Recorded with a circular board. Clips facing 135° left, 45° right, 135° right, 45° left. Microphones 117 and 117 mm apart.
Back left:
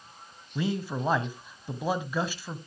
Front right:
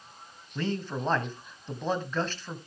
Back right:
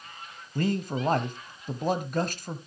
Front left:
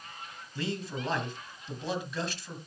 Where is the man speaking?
150° right, 1.4 m.